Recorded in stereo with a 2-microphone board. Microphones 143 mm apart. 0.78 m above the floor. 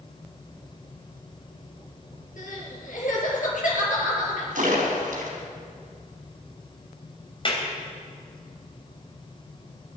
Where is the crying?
65° left (ahead or behind), 4.5 m.